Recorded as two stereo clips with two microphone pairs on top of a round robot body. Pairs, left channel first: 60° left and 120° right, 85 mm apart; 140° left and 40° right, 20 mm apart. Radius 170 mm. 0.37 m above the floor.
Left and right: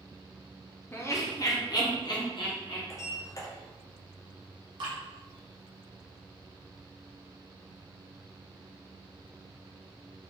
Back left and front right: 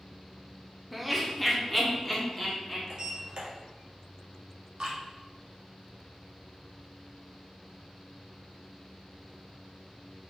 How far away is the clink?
No clink in this recording.